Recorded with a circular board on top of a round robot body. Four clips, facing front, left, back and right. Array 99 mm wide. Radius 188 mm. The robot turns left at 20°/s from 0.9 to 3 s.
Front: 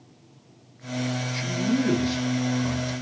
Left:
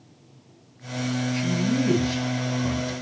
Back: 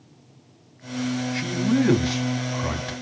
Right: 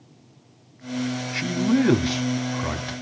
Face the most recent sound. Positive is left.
turn(degrees=-140)